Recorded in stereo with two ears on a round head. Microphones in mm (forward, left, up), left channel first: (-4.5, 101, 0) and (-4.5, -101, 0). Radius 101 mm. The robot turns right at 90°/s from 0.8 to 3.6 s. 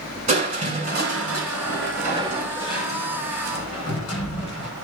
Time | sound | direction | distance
0.3 | crushing | 145° right | 9 m